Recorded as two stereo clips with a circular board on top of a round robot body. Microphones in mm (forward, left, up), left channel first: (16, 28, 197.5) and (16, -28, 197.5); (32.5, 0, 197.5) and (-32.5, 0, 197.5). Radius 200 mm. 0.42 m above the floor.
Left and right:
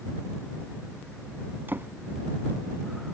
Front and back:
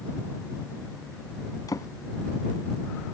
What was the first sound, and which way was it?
A drawer, 35° right.